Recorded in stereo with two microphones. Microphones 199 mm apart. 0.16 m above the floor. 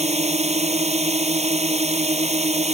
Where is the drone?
35° right (ahead or behind).